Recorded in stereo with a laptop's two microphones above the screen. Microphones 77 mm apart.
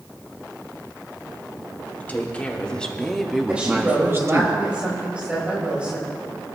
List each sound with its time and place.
2.0 s a woman speaking: 20° left (ahead or behind), 3 m; by 4.5 s 45° right (ahead or behind), 1.4 m
3.5 s a woman speaking: 15° right (ahead or behind), 4 m